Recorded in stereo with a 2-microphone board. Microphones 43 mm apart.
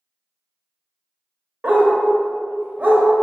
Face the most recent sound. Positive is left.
turn(degrees=-40)  # may be behind; listen again after turning